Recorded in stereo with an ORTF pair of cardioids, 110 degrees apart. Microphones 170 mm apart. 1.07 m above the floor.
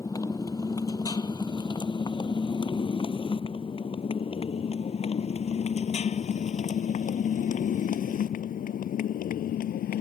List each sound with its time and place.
0.0 s a motorcycle: 20° left; by 10.0 s 60° left